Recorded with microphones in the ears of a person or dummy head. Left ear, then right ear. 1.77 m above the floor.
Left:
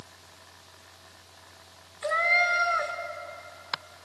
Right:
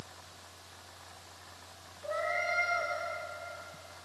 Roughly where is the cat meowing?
Left.